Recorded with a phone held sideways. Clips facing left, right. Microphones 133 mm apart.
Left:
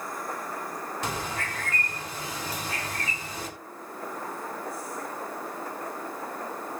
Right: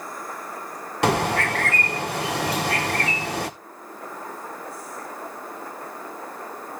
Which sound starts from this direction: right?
A bird, at 1.0 s.